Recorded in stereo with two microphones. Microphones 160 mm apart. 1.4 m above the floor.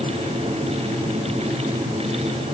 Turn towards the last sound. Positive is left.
No sound to turn to.